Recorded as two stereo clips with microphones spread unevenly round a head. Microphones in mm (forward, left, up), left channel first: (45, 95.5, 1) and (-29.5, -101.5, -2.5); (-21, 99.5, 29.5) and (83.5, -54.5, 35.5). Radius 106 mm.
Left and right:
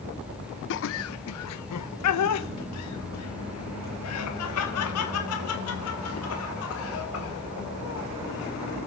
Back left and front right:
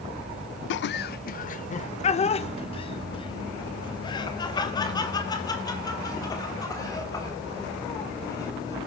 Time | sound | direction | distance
0.7 | laughter | 105° left | 0.5 m